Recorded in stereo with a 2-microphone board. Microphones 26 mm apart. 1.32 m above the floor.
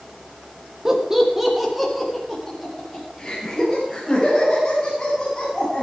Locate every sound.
0.8 s laughter: 15° right (ahead or behind), 2.5 m; by 5.8 s 30° left (ahead or behind), 8.5 m